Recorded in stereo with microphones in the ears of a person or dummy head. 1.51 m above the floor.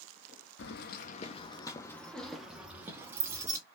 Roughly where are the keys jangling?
Left.